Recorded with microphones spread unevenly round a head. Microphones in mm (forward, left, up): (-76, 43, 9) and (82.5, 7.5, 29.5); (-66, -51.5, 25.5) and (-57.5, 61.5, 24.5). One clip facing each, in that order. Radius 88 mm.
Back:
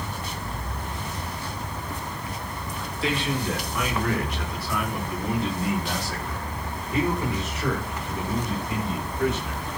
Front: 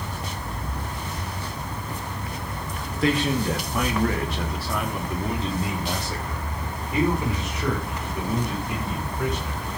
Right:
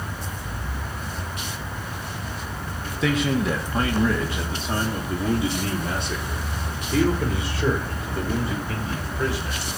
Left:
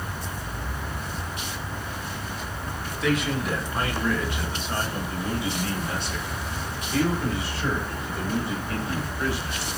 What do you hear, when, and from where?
3.0 s a man speaking: 70° right, 2 m; by 9.7 s 90° right, 7 m